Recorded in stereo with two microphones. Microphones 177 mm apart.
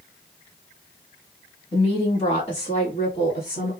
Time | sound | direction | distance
1.7 | a woman speaking | 30° left (ahead or behind) | 1.2 m